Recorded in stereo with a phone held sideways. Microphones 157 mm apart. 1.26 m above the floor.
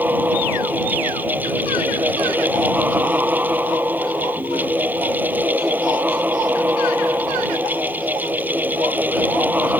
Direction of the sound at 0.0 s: 10° right (ahead or behind).